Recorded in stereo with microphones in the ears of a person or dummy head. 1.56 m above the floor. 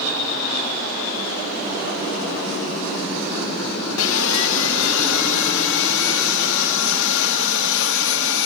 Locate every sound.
4.0 s sawing: 80° left, 1.9 m